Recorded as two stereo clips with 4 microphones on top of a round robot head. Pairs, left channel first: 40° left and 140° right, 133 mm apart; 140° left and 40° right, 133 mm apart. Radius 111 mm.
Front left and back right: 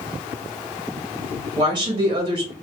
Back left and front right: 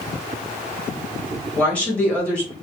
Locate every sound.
1.6 s a woman speaking: 150° right, 1.1 m